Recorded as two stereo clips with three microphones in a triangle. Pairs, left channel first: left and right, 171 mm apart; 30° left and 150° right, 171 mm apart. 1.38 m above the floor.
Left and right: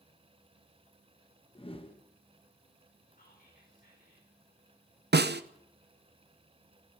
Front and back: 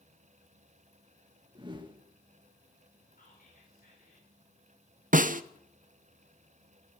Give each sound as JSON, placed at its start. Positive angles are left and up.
{"t": 1.6, "sound": "a whoosh", "azimuth_deg": 150, "distance_m": 1.2}
{"t": 3.1, "sound": "whispering", "azimuth_deg": 60, "distance_m": 4.0}
{"t": 5.1, "sound": "a snare drum", "azimuth_deg": -105, "distance_m": 0.6}